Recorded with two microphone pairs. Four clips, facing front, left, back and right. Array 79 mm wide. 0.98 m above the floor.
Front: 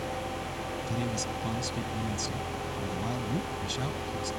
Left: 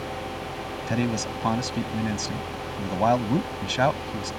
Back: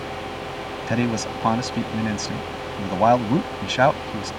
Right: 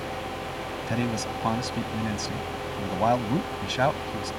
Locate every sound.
0.9 s a man speaking: 175° left